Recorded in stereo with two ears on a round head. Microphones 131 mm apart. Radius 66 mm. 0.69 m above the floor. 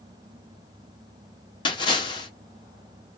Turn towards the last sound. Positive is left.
turn(degrees=30)  # may be behind; listen again after turning